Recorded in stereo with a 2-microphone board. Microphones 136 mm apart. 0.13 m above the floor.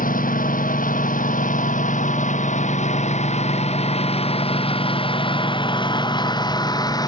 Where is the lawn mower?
85° left; by 7.1 s 30° left (ahead or behind).